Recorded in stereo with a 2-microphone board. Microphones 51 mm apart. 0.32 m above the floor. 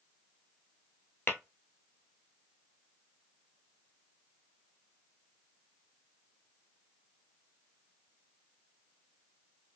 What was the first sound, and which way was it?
Tapping, 40° left (ahead or behind).